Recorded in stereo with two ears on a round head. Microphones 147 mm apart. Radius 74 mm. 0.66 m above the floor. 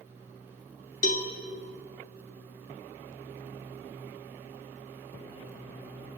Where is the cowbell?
50° left (ahead or behind), 1.3 m.